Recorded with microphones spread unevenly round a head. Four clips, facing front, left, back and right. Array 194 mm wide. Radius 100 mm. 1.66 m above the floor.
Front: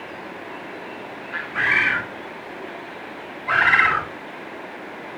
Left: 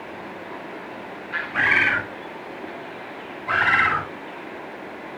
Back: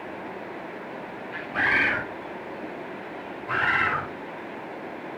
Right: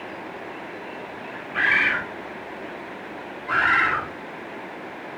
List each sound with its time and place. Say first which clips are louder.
1.5 s a bird: left 1 dB, front 2 dB; 135° left, 1.4 m
3.5 s a bird: left 1 dB, front 7 dB; 30° left, 4.5 m